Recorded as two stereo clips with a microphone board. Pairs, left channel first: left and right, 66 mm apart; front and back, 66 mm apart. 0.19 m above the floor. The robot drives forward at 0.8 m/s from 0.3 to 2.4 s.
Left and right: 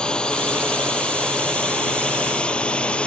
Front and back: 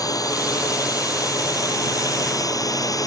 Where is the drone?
15° left.